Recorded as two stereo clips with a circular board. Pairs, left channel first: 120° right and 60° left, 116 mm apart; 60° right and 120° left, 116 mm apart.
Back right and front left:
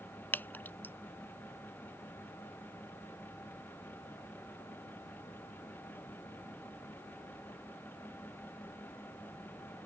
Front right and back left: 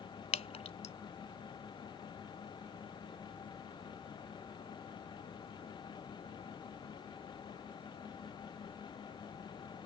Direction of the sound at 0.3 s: 50° right.